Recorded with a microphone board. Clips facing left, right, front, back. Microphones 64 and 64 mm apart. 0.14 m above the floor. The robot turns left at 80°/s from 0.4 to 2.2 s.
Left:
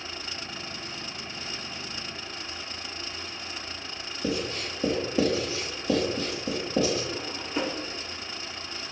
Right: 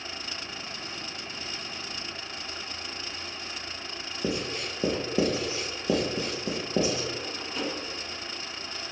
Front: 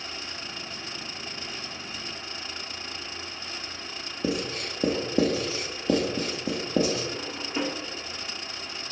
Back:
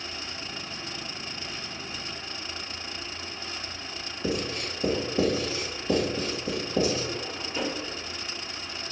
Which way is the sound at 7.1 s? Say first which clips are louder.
Left 3 dB, front 1 dB; 40° left.